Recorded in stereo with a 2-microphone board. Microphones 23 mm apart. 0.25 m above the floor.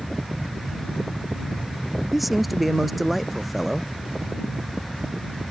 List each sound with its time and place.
2.1 s a man speaking: centre (ahead or behind)